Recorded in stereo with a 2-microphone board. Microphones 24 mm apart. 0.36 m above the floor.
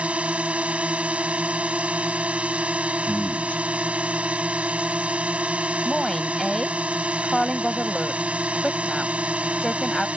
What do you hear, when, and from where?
0.0 s a drone: 55° right (ahead or behind)
3.0 s a man speaking: 60° left (ahead or behind)
5.8 s a woman speaking: 5° left (ahead or behind)